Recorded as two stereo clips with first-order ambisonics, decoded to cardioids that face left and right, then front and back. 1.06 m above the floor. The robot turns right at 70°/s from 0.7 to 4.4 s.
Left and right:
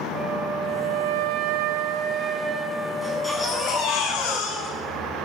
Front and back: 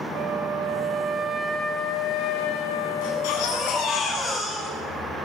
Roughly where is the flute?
Behind right.